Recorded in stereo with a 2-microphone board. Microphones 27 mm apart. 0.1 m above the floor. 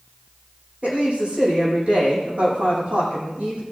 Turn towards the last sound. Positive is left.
turn(degrees=-55)  # may be behind; listen again after turning